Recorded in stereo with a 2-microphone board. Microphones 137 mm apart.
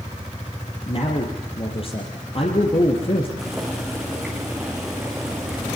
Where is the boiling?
5° right (ahead or behind), 7.5 m.